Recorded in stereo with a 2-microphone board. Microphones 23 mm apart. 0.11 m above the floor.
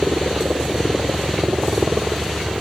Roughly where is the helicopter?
Right.